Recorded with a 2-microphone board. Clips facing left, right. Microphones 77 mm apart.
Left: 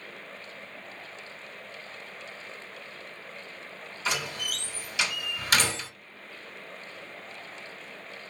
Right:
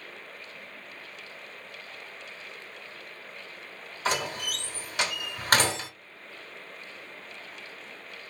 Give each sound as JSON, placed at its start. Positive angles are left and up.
{"t": 4.0, "sound": "a door slam", "side_deg": -50, "distance_m": 1.1}